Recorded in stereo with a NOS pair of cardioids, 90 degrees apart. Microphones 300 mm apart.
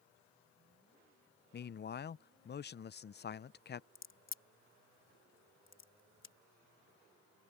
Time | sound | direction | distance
1.5 | a man speaking | 35° left | ?
4.0 | a crack | 45° left | ?